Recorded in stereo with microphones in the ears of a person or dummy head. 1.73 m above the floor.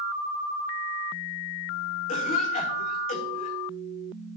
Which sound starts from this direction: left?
A cough, at 2.1 s.